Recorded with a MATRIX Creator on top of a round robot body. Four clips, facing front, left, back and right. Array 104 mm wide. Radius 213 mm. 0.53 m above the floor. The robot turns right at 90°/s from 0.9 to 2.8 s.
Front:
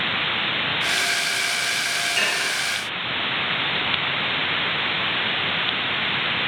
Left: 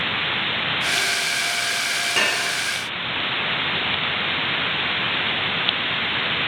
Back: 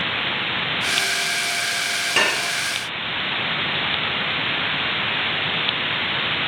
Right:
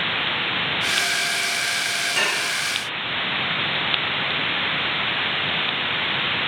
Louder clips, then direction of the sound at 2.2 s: Left 2 dB, back 7 dB; 165° left.